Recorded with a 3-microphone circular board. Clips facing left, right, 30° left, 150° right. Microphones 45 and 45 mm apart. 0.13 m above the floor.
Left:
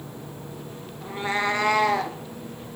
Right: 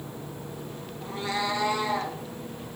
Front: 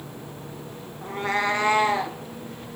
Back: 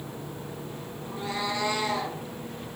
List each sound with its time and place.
1.0 s a cat meowing: 15° left, 1.1 m; by 2.2 s 90° left, 1.8 m